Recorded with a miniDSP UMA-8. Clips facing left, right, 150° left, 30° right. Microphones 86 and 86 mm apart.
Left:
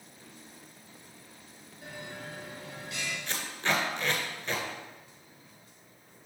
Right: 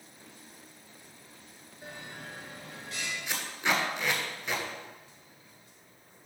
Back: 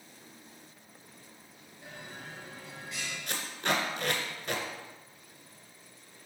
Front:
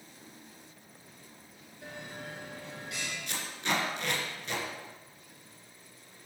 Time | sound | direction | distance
1.8 | a bell | 40° right | 4 m
3.3 | tape being pulled | 170° right | 1.9 m